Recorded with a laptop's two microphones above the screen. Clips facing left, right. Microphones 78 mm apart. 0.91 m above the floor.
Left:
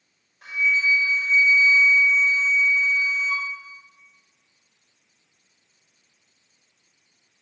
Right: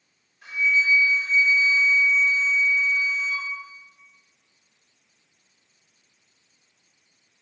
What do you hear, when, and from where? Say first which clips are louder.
0.4 s a flute: even; 65° left (ahead or behind), 1.5 m